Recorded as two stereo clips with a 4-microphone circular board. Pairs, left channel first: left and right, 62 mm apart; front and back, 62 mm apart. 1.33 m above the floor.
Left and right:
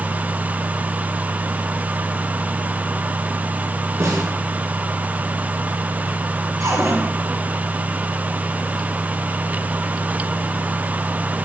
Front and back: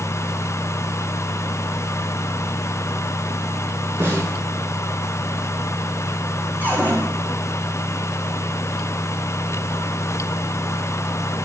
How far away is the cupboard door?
About 7 m.